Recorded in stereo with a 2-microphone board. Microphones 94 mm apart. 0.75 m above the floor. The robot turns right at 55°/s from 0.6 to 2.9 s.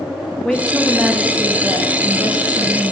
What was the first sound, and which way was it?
A woman speaking, 165° left.